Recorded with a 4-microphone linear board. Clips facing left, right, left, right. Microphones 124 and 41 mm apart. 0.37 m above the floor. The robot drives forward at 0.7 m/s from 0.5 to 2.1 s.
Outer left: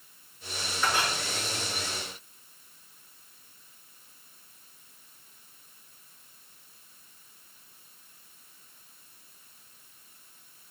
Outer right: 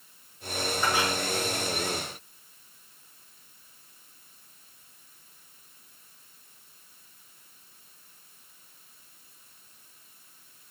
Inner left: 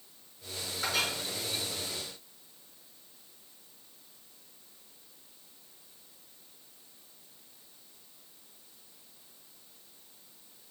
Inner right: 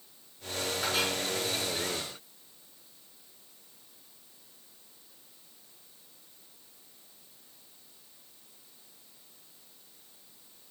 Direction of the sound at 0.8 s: 15° right (ahead or behind).